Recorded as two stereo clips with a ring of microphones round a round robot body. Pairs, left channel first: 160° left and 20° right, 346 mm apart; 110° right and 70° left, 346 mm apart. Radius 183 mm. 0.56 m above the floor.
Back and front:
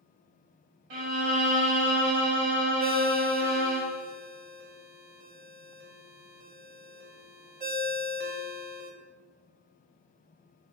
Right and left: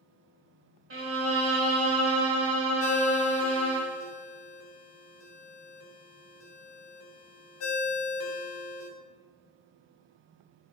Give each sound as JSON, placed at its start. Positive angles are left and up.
{"t": 0.9, "sound": "a violin", "azimuth_deg": 10, "distance_m": 0.8}
{"t": 2.8, "sound": "a ringtone", "azimuth_deg": -80, "distance_m": 0.8}